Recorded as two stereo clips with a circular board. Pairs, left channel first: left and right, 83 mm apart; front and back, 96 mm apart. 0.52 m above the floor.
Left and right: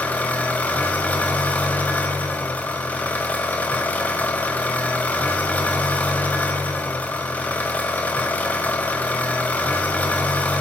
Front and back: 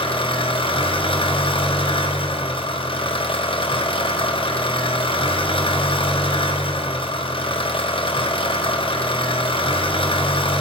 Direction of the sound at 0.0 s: 20° left.